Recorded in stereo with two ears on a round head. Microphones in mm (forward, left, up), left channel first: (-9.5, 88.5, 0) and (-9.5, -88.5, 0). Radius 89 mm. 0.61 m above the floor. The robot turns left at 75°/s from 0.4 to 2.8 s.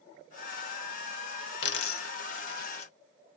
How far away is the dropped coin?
About 0.7 m.